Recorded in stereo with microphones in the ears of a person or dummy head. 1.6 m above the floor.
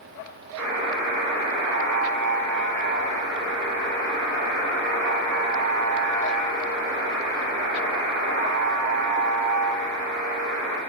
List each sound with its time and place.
0.6 s a buzzer: 85° right, 3 m